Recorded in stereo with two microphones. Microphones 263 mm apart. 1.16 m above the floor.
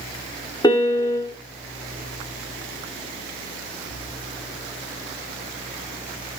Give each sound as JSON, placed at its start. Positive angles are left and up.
{"t": 0.6, "sound": "a piano", "side_deg": 15, "distance_m": 0.6}